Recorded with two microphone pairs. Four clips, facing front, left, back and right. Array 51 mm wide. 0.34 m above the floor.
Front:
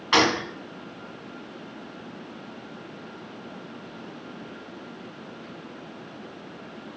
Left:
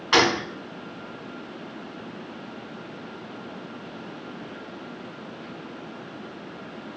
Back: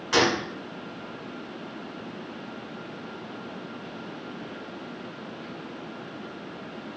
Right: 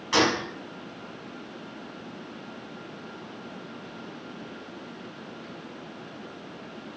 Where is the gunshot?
45° left, 0.7 m.